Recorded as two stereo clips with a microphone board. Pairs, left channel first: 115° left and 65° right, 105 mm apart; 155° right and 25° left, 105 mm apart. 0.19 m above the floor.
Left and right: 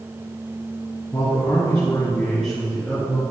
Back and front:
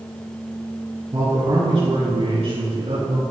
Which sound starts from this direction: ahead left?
A man speaking, at 1.1 s.